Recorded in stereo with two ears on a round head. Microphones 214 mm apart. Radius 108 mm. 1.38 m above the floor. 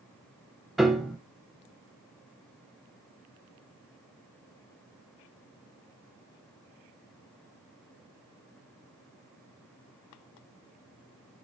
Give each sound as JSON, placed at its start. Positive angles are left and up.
{"t": 0.8, "sound": "a piano", "side_deg": 0, "distance_m": 1.0}